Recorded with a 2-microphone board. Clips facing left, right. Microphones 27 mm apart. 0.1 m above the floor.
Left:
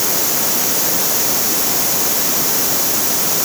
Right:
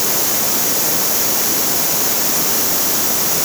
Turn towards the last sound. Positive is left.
No sound to turn to.